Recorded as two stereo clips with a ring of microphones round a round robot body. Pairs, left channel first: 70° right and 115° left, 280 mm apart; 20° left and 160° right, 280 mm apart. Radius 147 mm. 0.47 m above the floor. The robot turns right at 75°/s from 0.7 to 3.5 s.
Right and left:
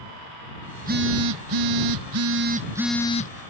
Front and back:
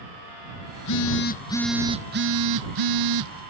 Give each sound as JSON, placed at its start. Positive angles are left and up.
{"t": 0.8, "sound": "a phone buzzing", "azimuth_deg": 40}